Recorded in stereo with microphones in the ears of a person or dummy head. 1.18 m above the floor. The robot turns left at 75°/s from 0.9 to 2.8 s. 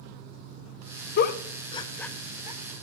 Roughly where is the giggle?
Left.